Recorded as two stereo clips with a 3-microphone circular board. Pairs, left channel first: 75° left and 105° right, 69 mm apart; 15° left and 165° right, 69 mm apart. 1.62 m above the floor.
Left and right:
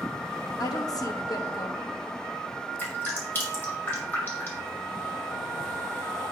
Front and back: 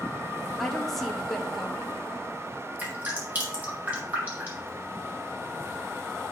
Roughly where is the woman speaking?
Left.